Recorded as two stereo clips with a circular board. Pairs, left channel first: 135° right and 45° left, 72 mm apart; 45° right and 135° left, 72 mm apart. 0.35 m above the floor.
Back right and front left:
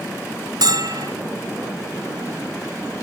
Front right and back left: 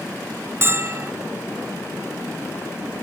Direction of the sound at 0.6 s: 80° left.